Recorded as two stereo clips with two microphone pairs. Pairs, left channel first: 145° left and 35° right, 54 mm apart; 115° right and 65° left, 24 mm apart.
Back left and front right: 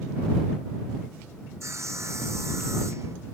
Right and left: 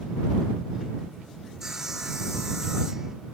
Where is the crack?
No crack in this recording.